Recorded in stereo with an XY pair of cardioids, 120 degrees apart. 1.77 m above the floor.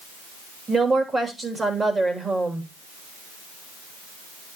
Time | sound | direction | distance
0.7 | a woman speaking | 20° right | 3 m